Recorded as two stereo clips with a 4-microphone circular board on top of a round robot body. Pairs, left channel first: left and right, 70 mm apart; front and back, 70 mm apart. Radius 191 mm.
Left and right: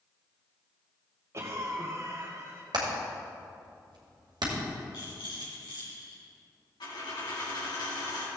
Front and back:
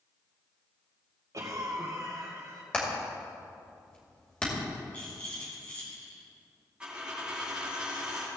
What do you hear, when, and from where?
1.3 s a cough: 140° right, 2.5 m
2.7 s hammering: 75° right, 2 m
4.9 s a rattle: 70° left, 3.5 m
6.8 s a dropped coin: 105° left, 3 m